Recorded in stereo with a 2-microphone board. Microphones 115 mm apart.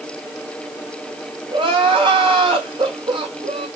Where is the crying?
45° right (ahead or behind), 2.5 m.